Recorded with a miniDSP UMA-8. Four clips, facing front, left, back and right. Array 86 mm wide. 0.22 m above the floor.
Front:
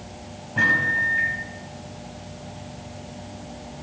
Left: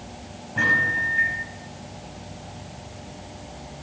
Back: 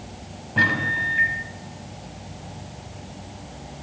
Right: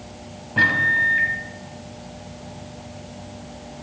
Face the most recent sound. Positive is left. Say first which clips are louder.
# right 3 dB, front 1 dB
turn(degrees=-125)